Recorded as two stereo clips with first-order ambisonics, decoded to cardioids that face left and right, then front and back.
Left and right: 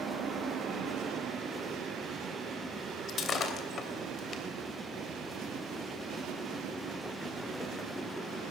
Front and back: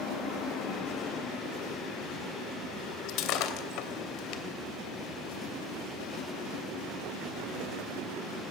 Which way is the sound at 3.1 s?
30° left.